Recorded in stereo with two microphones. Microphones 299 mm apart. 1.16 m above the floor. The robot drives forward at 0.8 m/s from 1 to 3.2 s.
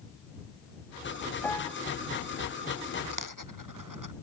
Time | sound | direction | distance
1.4 | a piano | 5° left (ahead or behind) | ?
3.1 | a dropped coin | 75° right (ahead or behind) | ?